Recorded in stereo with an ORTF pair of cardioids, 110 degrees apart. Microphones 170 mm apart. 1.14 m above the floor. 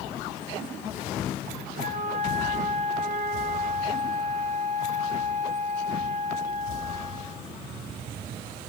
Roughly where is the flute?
Ahead right.